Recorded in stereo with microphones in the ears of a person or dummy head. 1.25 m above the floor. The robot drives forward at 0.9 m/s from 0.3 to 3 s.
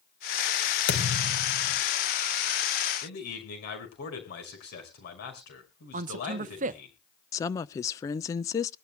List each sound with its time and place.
0.9 s a thud: 80° left, 3.5 m; by 1.8 s 65° left (ahead or behind), 3.5 m
3.0 s a man speaking: 65° left (ahead or behind), 5.5 m
5.9 s a man speaking: 40° right (ahead or behind), 0.6 m
7.3 s a woman speaking: 20° left (ahead or behind), 0.7 m